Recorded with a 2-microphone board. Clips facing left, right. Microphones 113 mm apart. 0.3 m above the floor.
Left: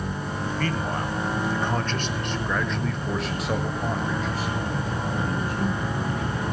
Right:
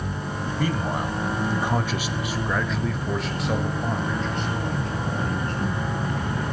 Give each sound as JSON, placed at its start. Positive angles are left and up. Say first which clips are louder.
{"t": 0.6, "sound": "a man speaking", "louder": "right 3 dB", "side_deg": -10, "distance_m": 1.9}